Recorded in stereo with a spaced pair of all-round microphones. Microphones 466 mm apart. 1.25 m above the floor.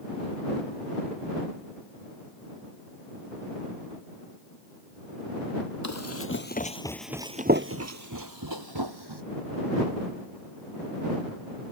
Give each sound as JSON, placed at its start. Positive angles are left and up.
{"t": 5.8, "sound": "running footsteps", "side_deg": 35}